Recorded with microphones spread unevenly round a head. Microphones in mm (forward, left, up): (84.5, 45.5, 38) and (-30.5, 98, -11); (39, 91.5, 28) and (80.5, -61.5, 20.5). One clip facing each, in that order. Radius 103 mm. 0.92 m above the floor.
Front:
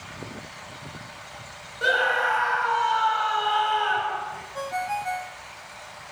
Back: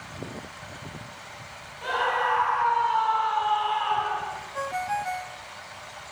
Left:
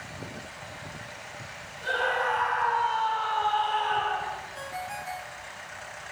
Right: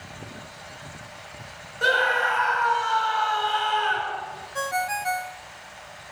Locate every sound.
1.8 s a scream: 75° right, 5.5 m
4.5 s a ringtone: 105° right, 0.6 m